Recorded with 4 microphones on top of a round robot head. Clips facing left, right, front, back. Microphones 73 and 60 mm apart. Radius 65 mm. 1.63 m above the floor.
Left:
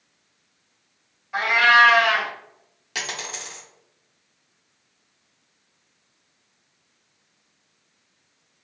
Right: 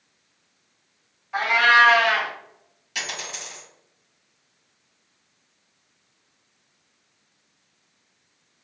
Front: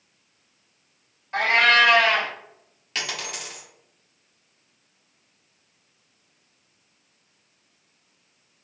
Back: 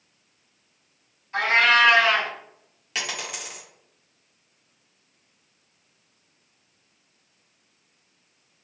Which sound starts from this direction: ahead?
A cat meowing, at 1.3 s.